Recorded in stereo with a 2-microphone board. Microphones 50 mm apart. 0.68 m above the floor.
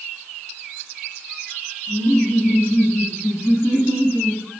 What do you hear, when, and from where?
1.9 s laughter: 60° left (ahead or behind), 4.5 m; by 4.4 s 80° left, 4.5 m